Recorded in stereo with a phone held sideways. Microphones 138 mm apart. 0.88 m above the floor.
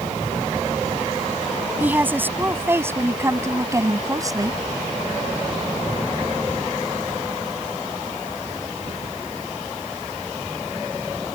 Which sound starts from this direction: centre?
A woman speaking, at 1.8 s.